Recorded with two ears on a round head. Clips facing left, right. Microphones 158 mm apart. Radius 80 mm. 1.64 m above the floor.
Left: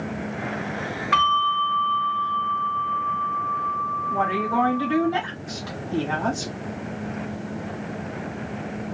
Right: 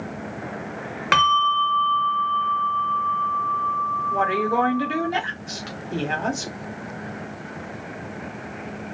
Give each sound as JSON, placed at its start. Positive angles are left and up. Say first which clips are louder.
{"t": 1.1, "sound": "a bell", "louder": "right 3 dB", "side_deg": -80, "distance_m": 1.2}
{"t": 4.1, "sound": "a woman speaking", "louder": "right 2 dB", "side_deg": -25, "distance_m": 1.6}